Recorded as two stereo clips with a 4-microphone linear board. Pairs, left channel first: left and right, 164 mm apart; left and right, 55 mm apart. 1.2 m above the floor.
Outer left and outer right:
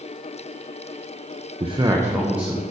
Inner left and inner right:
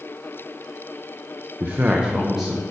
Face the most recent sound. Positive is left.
turn(degrees=-5)  # may be behind; listen again after turning